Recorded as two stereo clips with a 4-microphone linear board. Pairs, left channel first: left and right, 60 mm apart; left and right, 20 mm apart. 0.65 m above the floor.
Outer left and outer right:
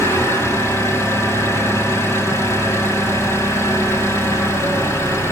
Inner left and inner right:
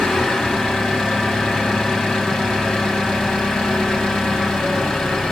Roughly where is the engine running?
Left.